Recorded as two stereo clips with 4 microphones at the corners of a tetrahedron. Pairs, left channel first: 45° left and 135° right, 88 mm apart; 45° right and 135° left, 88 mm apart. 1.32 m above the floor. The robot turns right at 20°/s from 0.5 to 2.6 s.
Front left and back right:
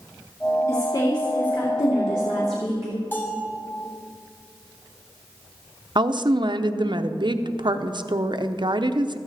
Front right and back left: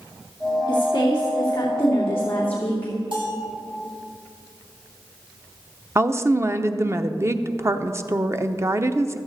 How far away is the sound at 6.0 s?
About 0.7 m.